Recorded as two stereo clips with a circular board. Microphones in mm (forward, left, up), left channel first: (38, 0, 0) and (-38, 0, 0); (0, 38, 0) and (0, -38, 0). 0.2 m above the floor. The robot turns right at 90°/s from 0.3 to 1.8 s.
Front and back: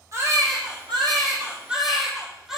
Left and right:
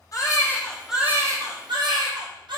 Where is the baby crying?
130° left, 2.5 m; by 2.6 s 95° right, 2.5 m.